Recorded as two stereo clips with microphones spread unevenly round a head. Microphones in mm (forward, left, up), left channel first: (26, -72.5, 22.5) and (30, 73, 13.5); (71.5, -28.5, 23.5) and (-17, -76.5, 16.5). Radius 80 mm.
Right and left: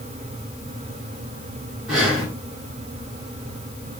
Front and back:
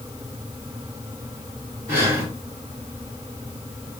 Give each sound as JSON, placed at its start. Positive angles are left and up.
{"t": 1.9, "sound": "breathing", "azimuth_deg": 175, "distance_m": 1.5}